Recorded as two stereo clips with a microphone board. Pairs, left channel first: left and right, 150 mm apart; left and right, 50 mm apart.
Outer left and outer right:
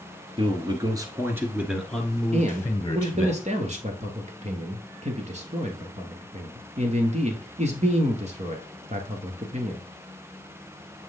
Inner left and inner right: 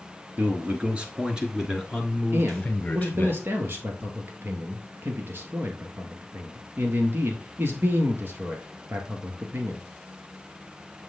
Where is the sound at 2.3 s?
50° right (ahead or behind), 1.6 m.